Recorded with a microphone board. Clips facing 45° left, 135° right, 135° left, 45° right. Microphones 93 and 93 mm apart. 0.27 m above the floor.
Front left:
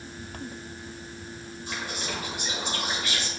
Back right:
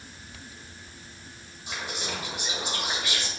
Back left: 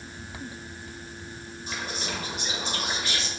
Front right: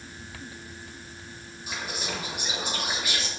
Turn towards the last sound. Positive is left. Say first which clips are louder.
# even, even
turn(degrees=-105)